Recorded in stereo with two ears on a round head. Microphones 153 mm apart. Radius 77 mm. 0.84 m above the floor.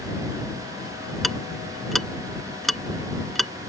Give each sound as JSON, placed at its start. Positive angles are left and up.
{"t": 1.2, "sound": "ticking", "side_deg": 0}